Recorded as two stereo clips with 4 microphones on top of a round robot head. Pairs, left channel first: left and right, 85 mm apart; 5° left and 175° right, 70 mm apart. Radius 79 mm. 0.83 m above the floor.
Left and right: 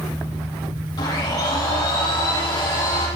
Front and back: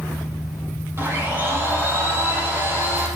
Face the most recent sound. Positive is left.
turn(degrees=135)